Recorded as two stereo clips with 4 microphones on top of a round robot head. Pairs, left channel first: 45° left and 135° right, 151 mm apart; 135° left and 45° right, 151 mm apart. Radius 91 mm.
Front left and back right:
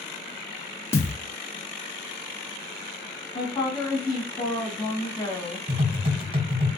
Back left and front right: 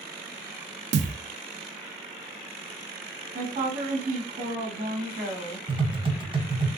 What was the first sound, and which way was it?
A thud, 30° right.